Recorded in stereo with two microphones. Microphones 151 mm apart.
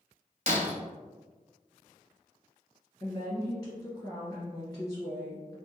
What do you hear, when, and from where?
0.5 s breaking glass: 55° right (ahead or behind), 0.8 m
3.0 s a woman speaking: 25° left (ahead or behind), 2.0 m